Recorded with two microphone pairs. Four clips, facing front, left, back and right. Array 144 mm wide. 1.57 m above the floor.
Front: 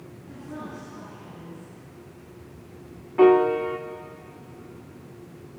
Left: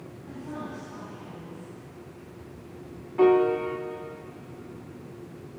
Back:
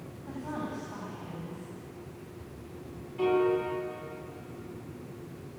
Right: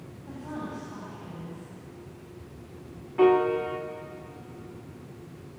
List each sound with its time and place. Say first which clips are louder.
0.2 s a woman speaking: right 1 dB, back 2 dB; 170° right, 8.5 m
3.2 s a piano: left 1 dB, front 9 dB; 5° right, 1.4 m